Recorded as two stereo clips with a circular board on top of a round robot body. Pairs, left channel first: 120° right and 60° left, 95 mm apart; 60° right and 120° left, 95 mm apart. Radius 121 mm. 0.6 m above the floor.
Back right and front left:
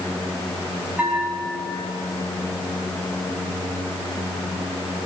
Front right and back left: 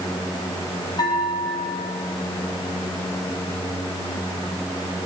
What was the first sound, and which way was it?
A bell, 15° right.